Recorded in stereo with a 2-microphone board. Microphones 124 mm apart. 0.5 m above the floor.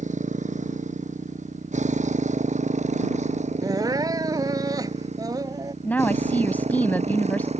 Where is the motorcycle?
75° right (ahead or behind); by 7.6 s 60° right (ahead or behind).